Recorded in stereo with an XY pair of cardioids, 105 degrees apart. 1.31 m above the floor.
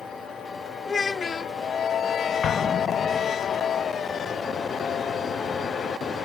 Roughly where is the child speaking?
Ahead left.